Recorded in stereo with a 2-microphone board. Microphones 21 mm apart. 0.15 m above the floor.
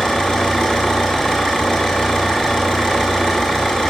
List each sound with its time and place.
0.0 s an engine running: 60° left (ahead or behind), 5 m